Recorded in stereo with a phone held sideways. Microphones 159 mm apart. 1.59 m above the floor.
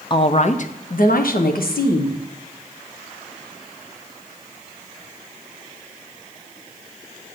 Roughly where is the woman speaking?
Left.